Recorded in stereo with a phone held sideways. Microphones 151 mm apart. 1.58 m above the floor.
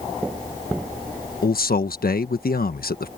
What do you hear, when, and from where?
1.4 s a man speaking: 80° left